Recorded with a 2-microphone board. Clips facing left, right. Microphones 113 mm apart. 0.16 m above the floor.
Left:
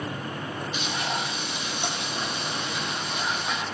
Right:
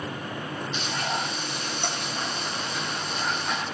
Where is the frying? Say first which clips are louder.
Right 1 dB; 10° left (ahead or behind), 3 m.